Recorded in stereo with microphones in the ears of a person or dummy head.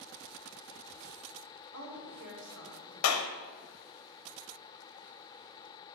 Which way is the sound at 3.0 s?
85° left.